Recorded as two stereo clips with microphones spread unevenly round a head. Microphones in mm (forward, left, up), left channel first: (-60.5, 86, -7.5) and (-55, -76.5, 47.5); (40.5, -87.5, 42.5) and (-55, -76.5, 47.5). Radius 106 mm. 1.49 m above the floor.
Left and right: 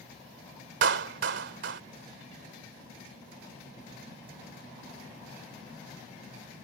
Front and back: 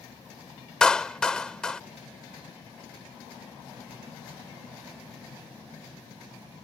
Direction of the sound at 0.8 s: 90° right.